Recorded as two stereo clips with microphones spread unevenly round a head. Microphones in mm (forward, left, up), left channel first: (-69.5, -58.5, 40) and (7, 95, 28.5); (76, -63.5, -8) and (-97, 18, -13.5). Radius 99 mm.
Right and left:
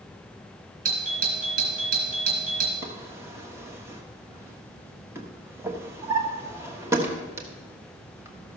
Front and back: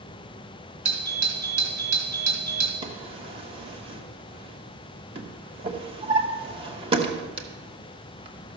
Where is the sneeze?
I don't hear a sneeze.